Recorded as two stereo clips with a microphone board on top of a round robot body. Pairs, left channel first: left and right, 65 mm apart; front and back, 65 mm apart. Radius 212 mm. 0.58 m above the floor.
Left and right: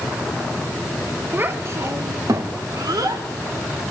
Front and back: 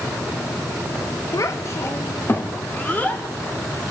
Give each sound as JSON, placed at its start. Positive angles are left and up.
{"t": 1.3, "sound": "a child speaking", "azimuth_deg": -30, "distance_m": 1.4}